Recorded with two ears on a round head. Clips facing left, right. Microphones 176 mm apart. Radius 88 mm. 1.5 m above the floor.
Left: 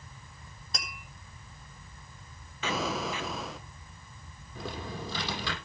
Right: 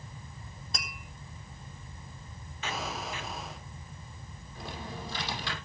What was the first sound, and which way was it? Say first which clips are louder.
Tapping: left 1 dB; centre (ahead or behind).